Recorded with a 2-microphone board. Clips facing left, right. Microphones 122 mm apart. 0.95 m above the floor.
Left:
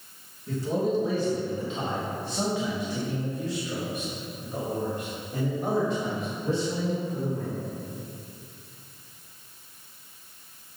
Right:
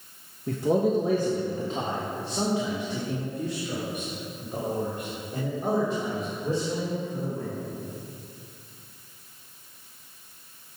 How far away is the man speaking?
About 0.9 m.